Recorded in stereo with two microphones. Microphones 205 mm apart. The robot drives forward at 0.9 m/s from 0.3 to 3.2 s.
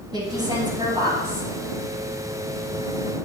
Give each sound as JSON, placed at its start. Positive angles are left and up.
{"t": 0.1, "sound": "a woman speaking", "side_deg": -20, "distance_m": 6.5}